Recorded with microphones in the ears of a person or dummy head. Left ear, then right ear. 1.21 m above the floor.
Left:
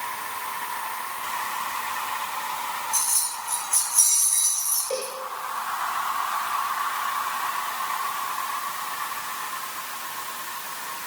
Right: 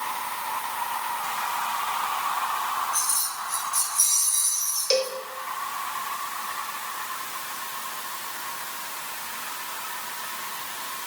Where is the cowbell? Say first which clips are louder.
Right 10 dB; 80° right, 2 m.